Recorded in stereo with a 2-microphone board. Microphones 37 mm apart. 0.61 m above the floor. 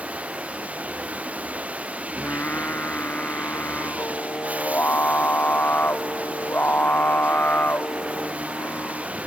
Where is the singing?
60° left (ahead or behind).